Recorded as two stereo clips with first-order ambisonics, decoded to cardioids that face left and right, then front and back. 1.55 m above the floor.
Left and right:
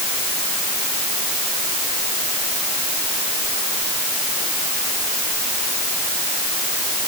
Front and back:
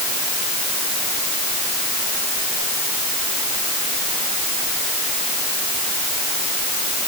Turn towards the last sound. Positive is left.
No sound to turn to.